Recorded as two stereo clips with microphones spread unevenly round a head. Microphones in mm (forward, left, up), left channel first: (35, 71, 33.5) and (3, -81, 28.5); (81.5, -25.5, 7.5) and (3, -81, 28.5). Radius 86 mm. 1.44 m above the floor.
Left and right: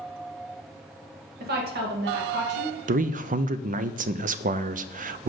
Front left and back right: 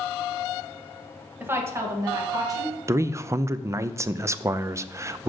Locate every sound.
1.4 s a woman speaking: 75° right, 1.6 m; by 2.8 s 95° right, 2 m
2.9 s a man speaking: 80° right, 0.5 m